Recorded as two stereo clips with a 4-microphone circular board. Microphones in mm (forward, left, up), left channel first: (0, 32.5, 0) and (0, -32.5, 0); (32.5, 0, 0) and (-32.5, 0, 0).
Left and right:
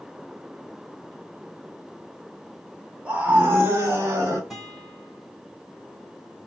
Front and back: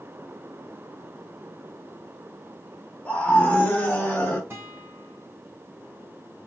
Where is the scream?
45° right, 0.9 m; by 4.4 s 60° right, 1.7 m.